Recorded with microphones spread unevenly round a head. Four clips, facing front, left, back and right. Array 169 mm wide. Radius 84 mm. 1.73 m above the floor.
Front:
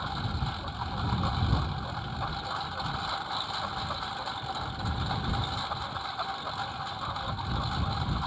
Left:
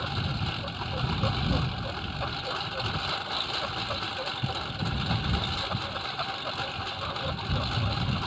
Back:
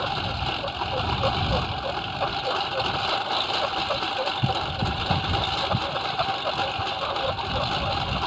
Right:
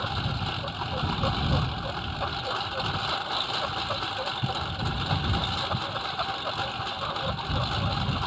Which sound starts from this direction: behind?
A lawn mower, at 0.0 s.